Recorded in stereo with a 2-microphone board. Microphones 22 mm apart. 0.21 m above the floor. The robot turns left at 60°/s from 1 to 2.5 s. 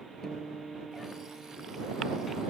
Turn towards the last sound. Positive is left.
turn(degrees=-65)